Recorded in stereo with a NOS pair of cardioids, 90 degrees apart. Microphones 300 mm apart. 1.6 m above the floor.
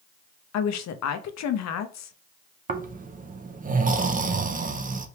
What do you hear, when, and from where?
0.5 s a woman speaking: 65° left, 0.8 m
2.7 s snoring: 30° right, 0.8 m